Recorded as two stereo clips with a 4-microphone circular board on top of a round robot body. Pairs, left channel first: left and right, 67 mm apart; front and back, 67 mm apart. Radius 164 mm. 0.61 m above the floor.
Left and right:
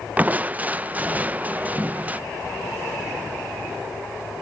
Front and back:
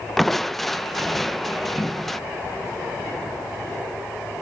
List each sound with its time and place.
0.2 s crushing: 85° right, 0.8 m